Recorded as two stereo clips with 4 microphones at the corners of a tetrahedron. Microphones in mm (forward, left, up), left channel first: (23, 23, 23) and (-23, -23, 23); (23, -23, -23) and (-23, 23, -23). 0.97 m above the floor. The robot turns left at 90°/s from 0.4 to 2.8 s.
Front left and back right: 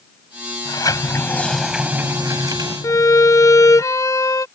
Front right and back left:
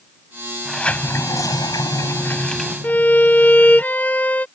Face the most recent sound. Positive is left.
turn(degrees=15)